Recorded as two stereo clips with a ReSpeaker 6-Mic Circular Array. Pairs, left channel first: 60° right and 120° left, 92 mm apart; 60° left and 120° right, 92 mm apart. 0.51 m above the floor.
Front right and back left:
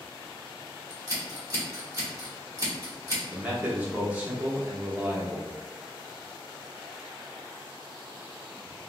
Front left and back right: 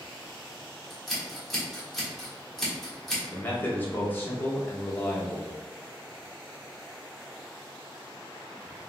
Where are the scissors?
145° left, 1.1 m.